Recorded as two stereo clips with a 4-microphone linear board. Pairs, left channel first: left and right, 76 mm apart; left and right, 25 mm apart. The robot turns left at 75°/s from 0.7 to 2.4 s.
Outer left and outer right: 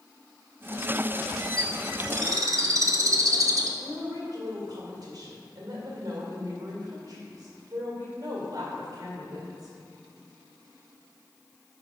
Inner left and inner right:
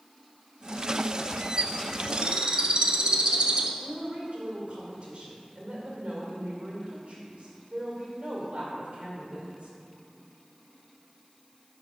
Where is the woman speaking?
60° right (ahead or behind), 2 m.